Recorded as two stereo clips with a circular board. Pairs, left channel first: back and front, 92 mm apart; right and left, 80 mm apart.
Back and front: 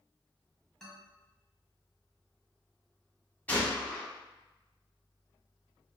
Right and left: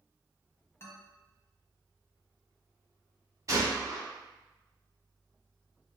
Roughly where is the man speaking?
Right.